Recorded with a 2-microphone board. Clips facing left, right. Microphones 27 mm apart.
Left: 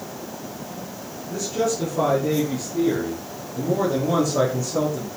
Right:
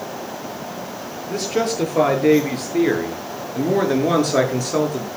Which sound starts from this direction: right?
A man speaking, at 1.3 s.